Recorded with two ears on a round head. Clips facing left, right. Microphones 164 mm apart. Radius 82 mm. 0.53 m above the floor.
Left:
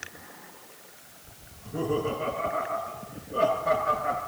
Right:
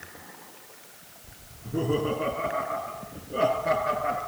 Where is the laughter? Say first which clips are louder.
Right 2 dB; 40° right (ahead or behind), 9 m; by 4.2 s 35° right (ahead or behind), 11.5 m.